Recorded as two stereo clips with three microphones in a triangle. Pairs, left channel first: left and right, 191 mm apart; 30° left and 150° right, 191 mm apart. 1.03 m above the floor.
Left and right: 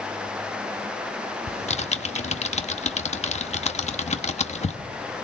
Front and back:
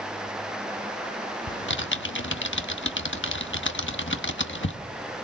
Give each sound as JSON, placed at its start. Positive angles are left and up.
{"t": 1.5, "sound": "typing on a keyboard", "azimuth_deg": 35, "distance_m": 1.2}